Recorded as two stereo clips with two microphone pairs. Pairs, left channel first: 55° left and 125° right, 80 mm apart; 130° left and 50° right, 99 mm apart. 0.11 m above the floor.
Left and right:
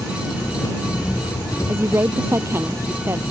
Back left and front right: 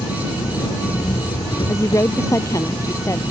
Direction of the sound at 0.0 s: 95° left.